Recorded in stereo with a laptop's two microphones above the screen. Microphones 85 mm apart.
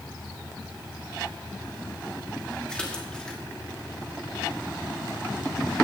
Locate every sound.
2.7 s a splash: 10° left (ahead or behind), 2.5 m